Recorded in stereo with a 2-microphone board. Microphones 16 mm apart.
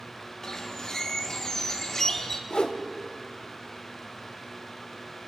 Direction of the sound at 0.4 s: 25° left (ahead or behind).